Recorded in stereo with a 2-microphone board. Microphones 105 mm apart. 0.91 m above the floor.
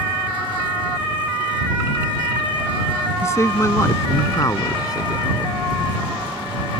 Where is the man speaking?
25° left (ahead or behind); by 5.5 s 40° left (ahead or behind).